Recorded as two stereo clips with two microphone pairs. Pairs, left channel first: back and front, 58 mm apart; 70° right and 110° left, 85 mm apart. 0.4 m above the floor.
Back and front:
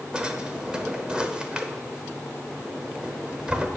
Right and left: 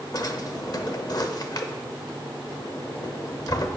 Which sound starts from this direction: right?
A drawer, at 0.1 s.